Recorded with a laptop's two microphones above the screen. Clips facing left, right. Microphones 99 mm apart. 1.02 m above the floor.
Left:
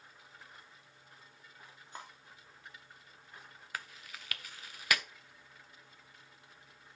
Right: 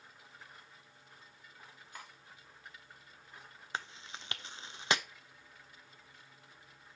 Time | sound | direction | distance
1.9 | cutlery clinking | 30° left (ahead or behind) | 1.2 m
3.7 | chewing | 25° right (ahead or behind) | 0.5 m